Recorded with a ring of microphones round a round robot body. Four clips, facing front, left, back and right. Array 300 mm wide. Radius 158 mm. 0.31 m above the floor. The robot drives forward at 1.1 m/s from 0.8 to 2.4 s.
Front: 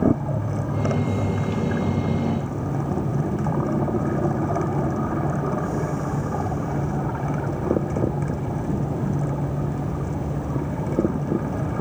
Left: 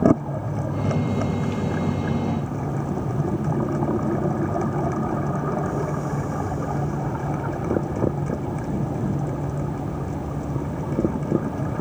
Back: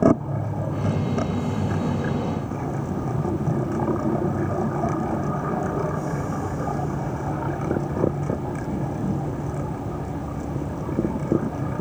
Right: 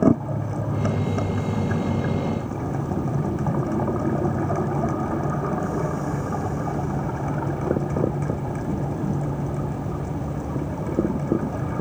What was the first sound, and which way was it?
Only background noise.